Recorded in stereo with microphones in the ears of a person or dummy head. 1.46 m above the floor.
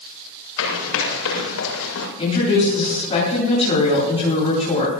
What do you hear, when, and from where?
0.6 s running footsteps: 80° left, 8 m; by 2.1 s 75° left (ahead or behind), 7.5 m
2.2 s a woman speaking: 30° left (ahead or behind), 9 m